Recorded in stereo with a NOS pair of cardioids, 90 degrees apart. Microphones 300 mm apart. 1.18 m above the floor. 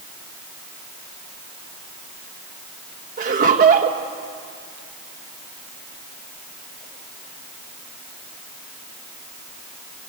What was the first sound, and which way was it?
Laughter, 35° right.